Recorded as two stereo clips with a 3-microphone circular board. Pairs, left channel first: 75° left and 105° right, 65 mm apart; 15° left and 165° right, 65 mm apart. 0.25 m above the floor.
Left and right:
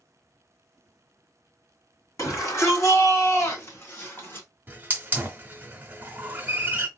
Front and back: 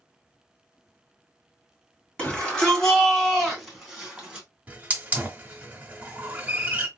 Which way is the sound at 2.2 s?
85° left.